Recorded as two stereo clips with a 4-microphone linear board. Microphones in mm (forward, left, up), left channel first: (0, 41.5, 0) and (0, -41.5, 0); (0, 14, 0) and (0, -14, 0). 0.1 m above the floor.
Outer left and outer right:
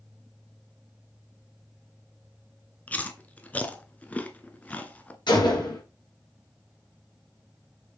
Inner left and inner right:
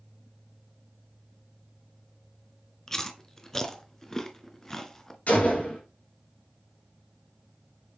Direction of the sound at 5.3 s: 75° left (ahead or behind).